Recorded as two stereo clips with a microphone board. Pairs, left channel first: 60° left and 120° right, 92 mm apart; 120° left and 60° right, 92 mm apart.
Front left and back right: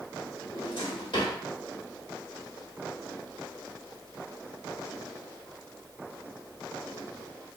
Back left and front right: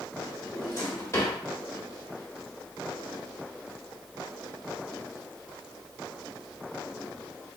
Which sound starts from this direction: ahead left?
A drawer, at 0.5 s.